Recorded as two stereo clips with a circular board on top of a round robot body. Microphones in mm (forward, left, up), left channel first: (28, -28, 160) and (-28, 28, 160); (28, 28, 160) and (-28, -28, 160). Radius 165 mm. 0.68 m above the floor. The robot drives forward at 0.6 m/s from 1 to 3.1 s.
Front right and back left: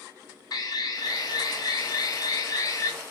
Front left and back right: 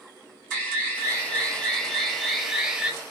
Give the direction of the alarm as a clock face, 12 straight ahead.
1 o'clock.